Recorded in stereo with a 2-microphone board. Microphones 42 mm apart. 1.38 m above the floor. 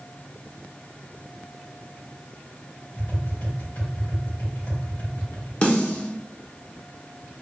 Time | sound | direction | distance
3.0 | tapping | 85° left | 1.9 m
5.6 | a snare drum | 35° left (ahead or behind) | 0.8 m